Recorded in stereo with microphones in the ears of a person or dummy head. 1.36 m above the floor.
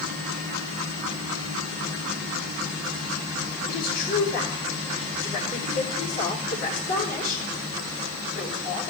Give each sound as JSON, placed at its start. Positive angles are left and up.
{"t": 3.7, "sound": "a woman speaking", "side_deg": 50, "distance_m": 5.0}